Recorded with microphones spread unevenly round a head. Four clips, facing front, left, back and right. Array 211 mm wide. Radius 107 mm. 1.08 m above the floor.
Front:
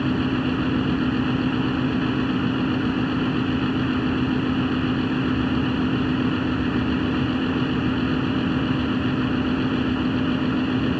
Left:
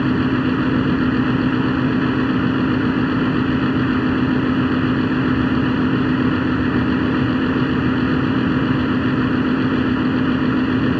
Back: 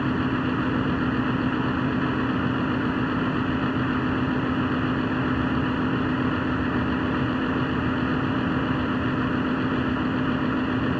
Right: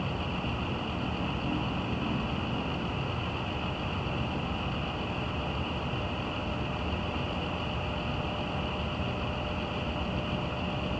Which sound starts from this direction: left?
A fan, at 0.0 s.